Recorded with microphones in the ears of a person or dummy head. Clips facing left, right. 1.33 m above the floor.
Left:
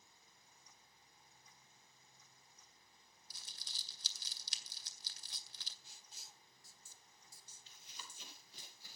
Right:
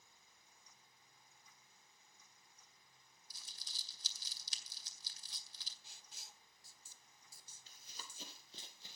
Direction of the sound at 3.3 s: 55° left (ahead or behind).